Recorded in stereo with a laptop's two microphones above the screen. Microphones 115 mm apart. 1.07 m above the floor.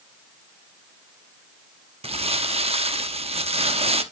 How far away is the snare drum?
No snare drum in this recording.